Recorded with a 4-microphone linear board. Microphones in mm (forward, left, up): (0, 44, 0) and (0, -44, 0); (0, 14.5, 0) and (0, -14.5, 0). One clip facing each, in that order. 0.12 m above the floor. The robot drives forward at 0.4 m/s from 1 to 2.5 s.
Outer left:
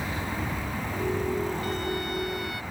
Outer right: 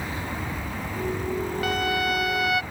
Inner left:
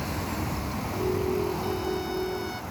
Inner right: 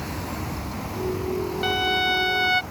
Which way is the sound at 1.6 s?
75° right (ahead or behind).